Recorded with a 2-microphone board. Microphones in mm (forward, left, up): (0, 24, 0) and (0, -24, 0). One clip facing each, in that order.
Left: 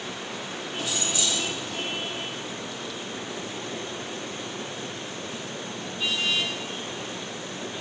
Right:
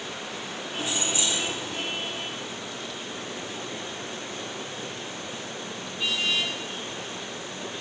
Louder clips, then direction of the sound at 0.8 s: Right 1 dB; 30° right (ahead or behind).